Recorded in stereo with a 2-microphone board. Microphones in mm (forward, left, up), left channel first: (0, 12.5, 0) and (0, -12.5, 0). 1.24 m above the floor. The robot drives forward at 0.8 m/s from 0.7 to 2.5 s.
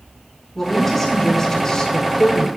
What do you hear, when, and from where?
0.6 s a woman speaking: 15° left (ahead or behind), 1.6 m; by 2.5 s 45° left (ahead or behind), 0.6 m